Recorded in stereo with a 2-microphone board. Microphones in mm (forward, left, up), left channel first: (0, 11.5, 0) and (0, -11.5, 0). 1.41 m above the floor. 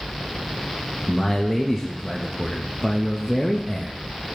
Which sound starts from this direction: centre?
A man speaking, at 1.1 s.